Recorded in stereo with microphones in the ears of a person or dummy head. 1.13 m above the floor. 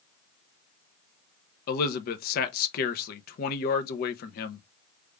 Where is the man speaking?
50° left (ahead or behind), 0.8 m.